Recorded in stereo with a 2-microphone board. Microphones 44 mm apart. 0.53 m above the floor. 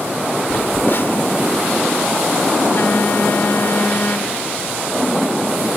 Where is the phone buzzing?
55° left (ahead or behind).